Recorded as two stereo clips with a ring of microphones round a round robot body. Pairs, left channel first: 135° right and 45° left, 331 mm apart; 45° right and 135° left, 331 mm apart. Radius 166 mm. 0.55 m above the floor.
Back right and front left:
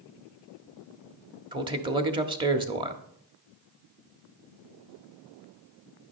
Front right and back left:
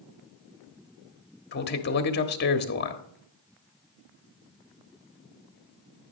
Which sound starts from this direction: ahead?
A man speaking, at 1.5 s.